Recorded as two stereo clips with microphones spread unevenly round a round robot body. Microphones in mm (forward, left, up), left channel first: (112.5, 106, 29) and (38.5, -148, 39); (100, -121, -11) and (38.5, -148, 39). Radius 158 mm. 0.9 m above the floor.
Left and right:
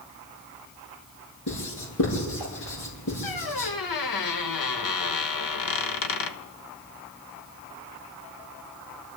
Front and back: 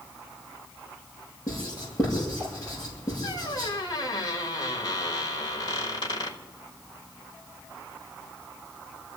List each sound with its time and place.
1.5 s writing: 110° left, 8 m
3.2 s a squeak: 95° left, 1.1 m